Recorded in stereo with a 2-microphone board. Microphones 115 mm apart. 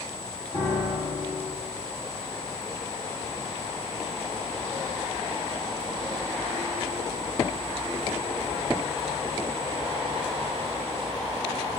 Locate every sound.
0.5 s a piano: 25° left (ahead or behind), 3 m